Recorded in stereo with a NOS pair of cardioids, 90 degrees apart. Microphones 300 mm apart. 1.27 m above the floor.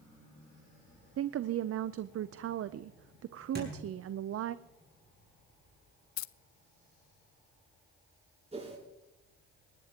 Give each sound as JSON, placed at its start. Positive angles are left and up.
{"t": 1.2, "sound": "a woman speaking", "azimuth_deg": -50, "distance_m": 0.6}
{"t": 3.5, "sound": "a thud", "azimuth_deg": -35, "distance_m": 6.0}
{"t": 6.2, "sound": "keys jangling", "azimuth_deg": 65, "distance_m": 0.5}
{"t": 8.5, "sound": "a whoosh", "azimuth_deg": -20, "distance_m": 7.5}